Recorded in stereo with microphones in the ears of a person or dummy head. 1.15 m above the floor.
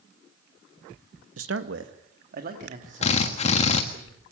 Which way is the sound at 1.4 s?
70° right (ahead or behind).